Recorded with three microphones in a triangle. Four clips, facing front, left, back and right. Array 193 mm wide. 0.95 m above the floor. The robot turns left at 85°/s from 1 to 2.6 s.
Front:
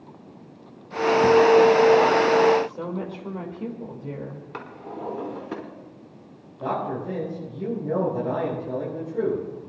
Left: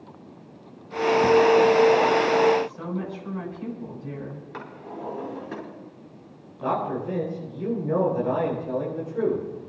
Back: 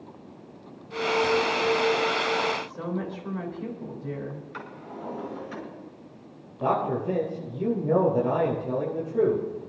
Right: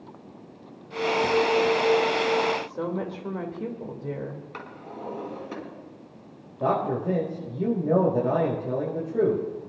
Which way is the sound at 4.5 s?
10° left.